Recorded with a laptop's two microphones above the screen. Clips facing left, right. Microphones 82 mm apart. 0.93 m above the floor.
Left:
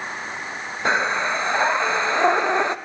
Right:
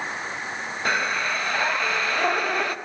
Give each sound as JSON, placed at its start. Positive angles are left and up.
{"t": 0.8, "sound": "breathing", "side_deg": 25, "distance_m": 0.7}